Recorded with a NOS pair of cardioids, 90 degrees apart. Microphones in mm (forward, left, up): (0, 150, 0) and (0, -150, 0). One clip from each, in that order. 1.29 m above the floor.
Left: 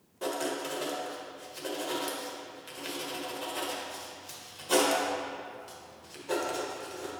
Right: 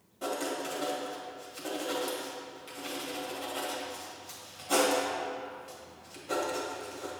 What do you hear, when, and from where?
0.2 s writing: 25° left, 1.7 m